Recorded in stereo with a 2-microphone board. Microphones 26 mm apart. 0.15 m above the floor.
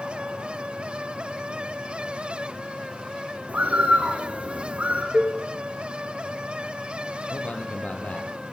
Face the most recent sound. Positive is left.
turn(degrees=75)  # may be behind; listen again after turning